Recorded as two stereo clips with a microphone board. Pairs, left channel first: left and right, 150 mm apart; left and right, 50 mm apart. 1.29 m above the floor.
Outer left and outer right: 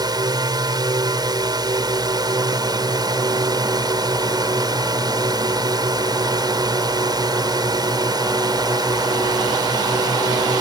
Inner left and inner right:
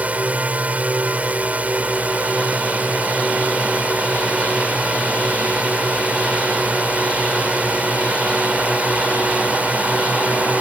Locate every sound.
0.0 s a drone: 30° right (ahead or behind)